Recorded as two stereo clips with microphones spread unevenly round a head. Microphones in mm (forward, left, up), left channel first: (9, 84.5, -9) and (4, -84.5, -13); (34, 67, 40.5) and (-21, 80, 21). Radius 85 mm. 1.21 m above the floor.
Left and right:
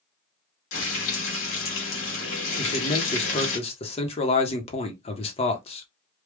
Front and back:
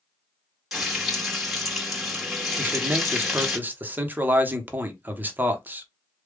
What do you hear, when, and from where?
0.7 s frying: 80° left, 1.8 m
2.6 s a man speaking: 140° left, 1.0 m